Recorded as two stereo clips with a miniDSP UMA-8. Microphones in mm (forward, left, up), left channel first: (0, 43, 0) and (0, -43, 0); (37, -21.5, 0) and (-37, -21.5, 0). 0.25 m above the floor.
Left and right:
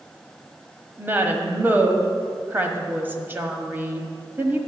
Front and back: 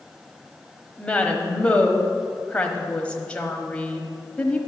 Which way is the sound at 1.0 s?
55° right.